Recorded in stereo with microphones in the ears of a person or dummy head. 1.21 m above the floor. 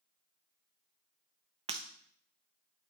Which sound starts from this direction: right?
Breaking glass, at 1.7 s.